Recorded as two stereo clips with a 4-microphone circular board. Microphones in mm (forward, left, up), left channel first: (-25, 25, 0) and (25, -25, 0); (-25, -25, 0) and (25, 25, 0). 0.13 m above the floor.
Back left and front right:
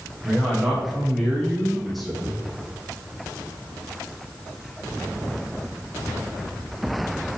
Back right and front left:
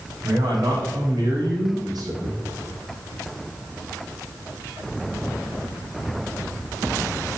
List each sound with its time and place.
0.2 s a man speaking: 40° left, 6.5 m; by 2.4 s 45° left, 8 m